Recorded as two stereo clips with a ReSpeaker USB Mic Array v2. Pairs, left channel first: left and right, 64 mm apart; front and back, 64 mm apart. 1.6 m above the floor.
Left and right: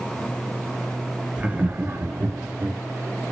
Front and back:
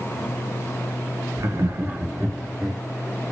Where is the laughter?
160° right, 0.5 m; by 2.8 s 85° right, 0.8 m.